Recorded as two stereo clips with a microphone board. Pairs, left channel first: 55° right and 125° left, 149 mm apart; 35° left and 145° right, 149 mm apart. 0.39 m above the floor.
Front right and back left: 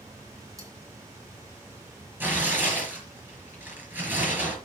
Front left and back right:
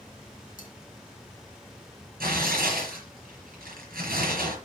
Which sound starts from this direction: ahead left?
Cutlery clinking, at 0.6 s.